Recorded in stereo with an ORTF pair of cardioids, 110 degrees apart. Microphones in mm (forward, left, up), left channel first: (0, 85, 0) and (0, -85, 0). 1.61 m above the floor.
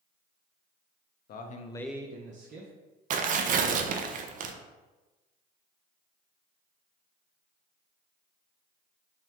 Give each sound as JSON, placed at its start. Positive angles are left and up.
{"t": 1.3, "sound": "a man speaking", "azimuth_deg": 60, "distance_m": 0.9}
{"t": 3.1, "sound": "tearing paper", "azimuth_deg": -50, "distance_m": 0.6}